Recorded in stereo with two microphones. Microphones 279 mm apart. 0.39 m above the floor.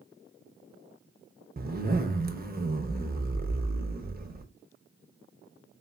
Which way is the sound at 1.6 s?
35° right (ahead or behind).